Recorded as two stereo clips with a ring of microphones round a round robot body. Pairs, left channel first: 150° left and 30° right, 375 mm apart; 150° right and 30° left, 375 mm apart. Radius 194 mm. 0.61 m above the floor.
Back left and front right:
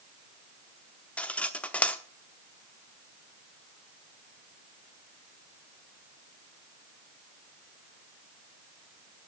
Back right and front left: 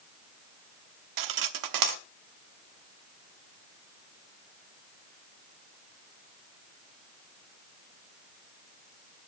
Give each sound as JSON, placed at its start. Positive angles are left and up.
{"t": 1.2, "sound": "cutlery clinking", "azimuth_deg": 65, "distance_m": 0.9}